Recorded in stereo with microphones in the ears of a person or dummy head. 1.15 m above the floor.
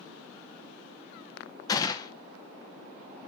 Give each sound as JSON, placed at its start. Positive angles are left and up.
{"t": 1.7, "sound": "a gunshot", "side_deg": 25, "distance_m": 0.6}